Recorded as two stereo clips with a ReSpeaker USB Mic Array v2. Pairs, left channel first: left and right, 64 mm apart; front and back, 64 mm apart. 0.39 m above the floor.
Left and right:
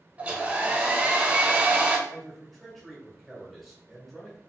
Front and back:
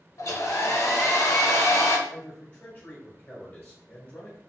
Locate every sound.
0.2 s a hair dryer: 30° right, 0.7 m
2.1 s a man speaking: straight ahead, 1.1 m